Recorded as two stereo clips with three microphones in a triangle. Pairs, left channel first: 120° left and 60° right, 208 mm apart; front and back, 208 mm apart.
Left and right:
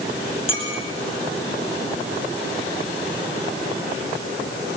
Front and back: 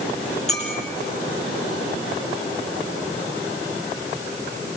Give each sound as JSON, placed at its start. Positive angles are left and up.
{"t": 0.5, "sound": "a clink", "azimuth_deg": 55, "distance_m": 6.5}